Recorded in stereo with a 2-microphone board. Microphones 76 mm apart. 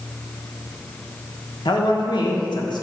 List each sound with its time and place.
1.6 s a man speaking: 75° left (ahead or behind), 1.6 m